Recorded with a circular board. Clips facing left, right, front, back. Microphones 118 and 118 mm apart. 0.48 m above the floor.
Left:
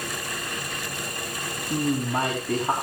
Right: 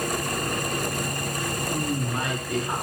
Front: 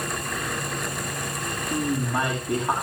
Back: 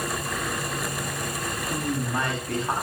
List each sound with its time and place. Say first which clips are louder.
1.7 s a woman speaking: left 6 dB, front 3 dB; 75° left, 5 m